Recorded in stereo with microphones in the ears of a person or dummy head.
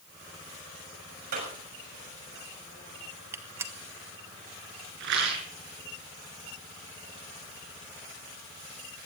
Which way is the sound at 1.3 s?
55° right (ahead or behind).